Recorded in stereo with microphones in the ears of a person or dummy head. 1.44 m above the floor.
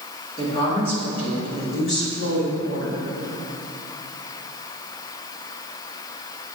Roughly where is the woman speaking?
Left.